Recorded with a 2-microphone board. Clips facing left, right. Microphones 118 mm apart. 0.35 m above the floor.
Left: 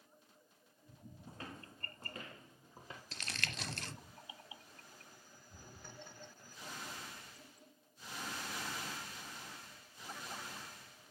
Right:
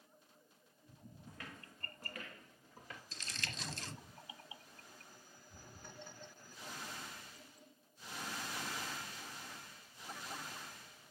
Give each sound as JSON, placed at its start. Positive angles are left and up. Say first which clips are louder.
{"t": 1.3, "sound": "footsteps", "louder": "left 4 dB", "side_deg": 30, "distance_m": 1.0}
{"t": 3.1, "sound": "crumpling", "louder": "left 4 dB", "side_deg": 65, "distance_m": 0.7}